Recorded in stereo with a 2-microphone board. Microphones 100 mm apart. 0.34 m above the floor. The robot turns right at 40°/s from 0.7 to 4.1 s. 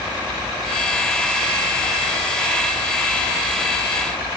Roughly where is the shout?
No shout in this recording.